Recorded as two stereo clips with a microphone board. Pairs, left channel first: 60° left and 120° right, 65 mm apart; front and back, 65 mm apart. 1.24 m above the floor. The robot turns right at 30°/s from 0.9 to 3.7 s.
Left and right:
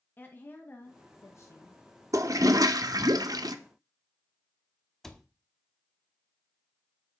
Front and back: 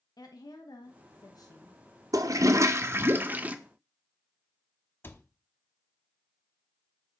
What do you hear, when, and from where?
0.2 s a woman speaking: straight ahead, 1.0 m; by 1.8 s 30° left, 1.0 m
2.1 s a toilet flushing: 155° right, 0.7 m; by 3.5 s 110° right, 0.7 m
5.0 s a cupboard door: 25° right, 0.8 m